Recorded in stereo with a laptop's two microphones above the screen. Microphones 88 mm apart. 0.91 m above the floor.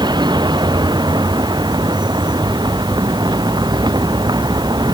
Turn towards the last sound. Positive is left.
turn(degrees=-60)  # may be behind; listen again after turning